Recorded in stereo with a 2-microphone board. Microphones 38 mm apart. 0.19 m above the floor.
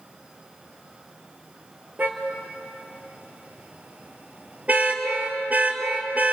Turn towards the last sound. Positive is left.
turn(degrees=-45)  # may be behind; listen again after turning